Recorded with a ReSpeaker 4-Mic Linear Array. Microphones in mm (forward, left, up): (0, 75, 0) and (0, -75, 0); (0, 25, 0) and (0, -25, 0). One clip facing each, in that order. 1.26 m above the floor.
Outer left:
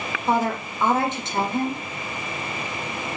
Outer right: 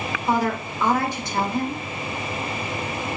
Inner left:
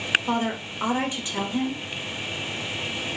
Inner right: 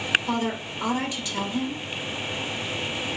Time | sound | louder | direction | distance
0.3 | a woman speaking | even, inner left 1 dB | 20° left (ahead or behind) | 0.7 m